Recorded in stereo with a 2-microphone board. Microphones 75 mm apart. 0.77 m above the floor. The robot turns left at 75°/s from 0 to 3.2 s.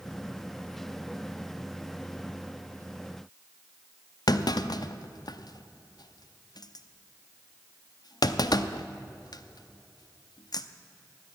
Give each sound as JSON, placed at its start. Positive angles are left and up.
{"t": 4.3, "sound": "a clunk", "side_deg": 65, "distance_m": 0.6}